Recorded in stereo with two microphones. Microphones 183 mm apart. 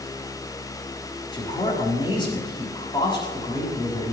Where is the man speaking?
25° left (ahead or behind), 6 m.